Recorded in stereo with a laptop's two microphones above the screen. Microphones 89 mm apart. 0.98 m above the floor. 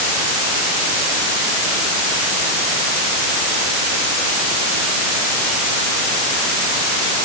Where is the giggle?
I don't hear a giggle.